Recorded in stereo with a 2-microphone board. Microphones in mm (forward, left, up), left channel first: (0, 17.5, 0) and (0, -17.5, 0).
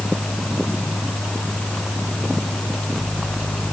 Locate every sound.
Only background noise.